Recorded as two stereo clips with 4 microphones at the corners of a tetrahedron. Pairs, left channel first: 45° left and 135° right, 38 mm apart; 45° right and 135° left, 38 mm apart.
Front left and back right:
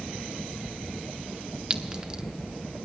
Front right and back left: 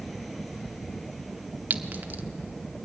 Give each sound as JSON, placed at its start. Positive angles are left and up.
{"t": 1.7, "sound": "a clink", "azimuth_deg": 165, "distance_m": 1.2}